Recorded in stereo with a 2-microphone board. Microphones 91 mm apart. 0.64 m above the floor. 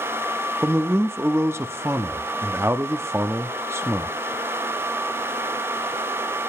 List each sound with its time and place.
0.6 s a man speaking: 25° right (ahead or behind), 0.8 m